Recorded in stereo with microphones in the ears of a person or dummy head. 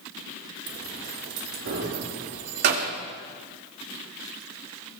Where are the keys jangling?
75° right (ahead or behind), 2.5 m; by 2.9 s 50° right (ahead or behind), 2.0 m.